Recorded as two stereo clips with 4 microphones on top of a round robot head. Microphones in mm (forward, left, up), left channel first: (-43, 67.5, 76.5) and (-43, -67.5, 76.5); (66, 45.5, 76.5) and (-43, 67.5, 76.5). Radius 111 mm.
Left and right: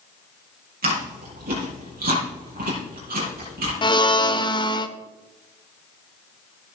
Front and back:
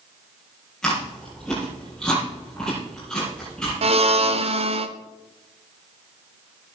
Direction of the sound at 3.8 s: 145° left.